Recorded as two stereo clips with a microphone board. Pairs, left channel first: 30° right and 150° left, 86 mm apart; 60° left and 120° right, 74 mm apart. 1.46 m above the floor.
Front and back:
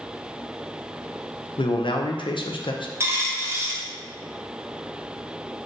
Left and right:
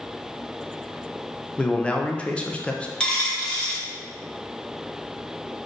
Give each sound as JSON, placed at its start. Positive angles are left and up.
{"t": 1.6, "sound": "a man speaking", "azimuth_deg": -15, "distance_m": 0.5}
{"t": 3.0, "sound": "a dropped coin", "azimuth_deg": 135, "distance_m": 0.8}